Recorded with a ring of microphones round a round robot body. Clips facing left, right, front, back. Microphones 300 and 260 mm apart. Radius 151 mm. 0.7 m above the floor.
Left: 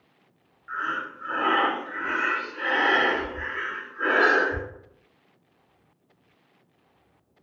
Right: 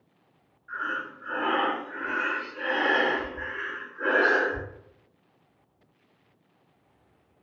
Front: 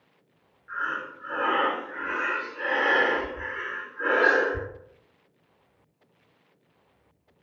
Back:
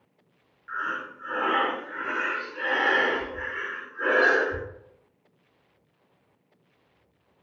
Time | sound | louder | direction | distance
0.7 | breathing | left 1 dB, even | 145° left | 0.7 m